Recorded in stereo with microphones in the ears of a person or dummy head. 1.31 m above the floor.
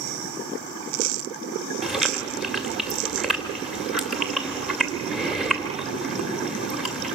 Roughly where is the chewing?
Centre.